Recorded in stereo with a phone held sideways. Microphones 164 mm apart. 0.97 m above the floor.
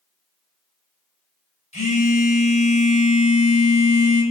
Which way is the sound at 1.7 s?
50° left (ahead or behind).